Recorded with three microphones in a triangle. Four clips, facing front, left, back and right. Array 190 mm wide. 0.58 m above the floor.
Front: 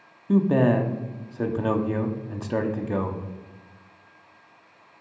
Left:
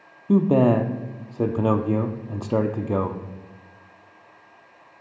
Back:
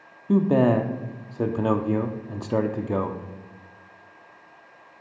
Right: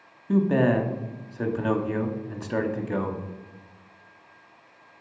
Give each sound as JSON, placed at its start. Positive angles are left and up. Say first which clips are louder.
{"t": 0.3, "sound": "a man speaking", "louder": "left 4 dB, back 1 dB", "azimuth_deg": 120, "distance_m": 0.7}